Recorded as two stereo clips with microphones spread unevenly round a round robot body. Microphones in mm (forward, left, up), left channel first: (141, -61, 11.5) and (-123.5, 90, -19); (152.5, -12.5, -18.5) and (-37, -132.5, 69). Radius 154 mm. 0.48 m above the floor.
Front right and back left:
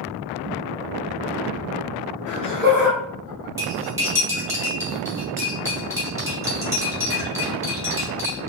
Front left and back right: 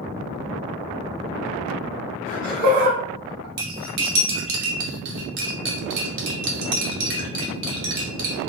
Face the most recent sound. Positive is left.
turn(degrees=-135)